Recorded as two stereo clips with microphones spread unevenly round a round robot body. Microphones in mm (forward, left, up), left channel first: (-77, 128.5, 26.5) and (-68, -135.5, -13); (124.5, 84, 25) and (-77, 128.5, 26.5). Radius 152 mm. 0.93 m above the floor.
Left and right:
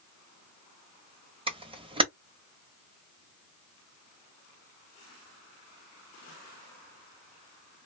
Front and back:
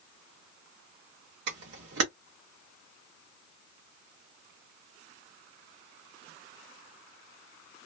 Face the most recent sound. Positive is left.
turn(degrees=-160)